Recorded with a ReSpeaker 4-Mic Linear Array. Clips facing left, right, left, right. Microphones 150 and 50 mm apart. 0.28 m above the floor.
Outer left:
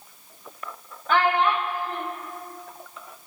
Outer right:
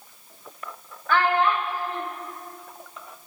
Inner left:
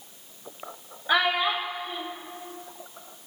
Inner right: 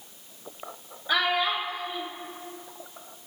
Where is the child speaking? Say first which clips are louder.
Even, inner left 2 dB; 20° left (ahead or behind), 0.5 m.